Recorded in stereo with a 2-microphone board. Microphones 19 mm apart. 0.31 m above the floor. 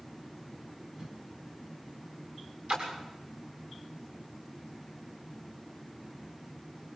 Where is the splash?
75° right (ahead or behind), 7 m.